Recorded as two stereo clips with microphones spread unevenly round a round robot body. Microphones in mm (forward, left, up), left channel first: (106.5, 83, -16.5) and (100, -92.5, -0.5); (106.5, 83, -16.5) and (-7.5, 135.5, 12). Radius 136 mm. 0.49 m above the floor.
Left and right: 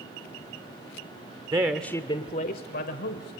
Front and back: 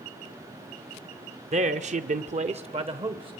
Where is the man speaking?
165° right, 1.0 m; by 3.4 s 100° left, 2 m.